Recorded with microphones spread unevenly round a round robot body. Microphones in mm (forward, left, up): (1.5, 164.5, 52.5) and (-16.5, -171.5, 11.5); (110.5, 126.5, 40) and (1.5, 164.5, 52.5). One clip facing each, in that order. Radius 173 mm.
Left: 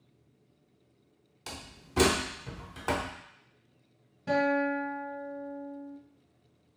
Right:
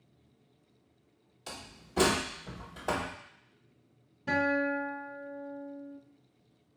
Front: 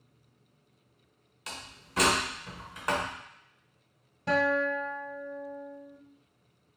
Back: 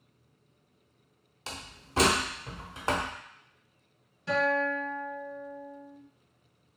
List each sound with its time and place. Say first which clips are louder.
1.5 s a door slam: left 1 dB, back 1 dB; 130° left, 1.0 m
4.3 s a guitar: left 2 dB, front 1 dB; straight ahead, 1.6 m